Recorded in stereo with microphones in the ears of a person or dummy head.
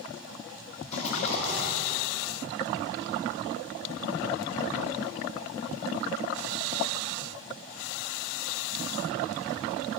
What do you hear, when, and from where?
0.9 s a rattle: 35° left (ahead or behind), 1.6 m